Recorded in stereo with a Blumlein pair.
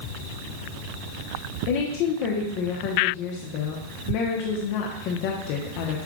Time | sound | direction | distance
1.7 | a woman speaking | 45° left | 1.0 m